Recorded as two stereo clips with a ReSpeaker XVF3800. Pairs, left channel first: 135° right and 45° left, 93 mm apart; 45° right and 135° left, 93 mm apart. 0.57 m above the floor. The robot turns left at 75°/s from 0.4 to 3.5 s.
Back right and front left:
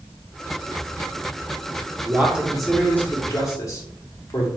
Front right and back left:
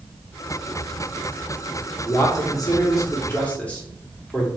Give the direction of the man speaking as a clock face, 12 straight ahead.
12 o'clock.